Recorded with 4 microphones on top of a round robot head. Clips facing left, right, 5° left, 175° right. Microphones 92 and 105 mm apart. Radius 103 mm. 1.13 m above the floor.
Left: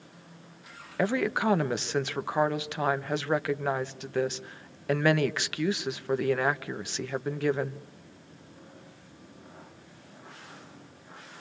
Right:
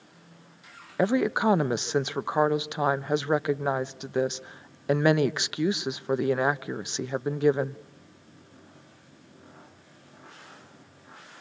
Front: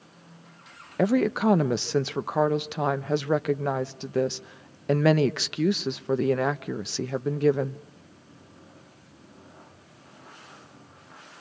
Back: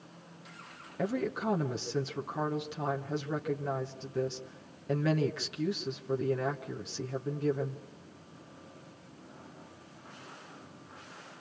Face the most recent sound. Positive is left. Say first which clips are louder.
# right 3 dB, front 10 dB
turn(degrees=-20)